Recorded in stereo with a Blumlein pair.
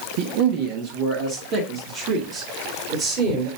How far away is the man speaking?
About 1.1 m.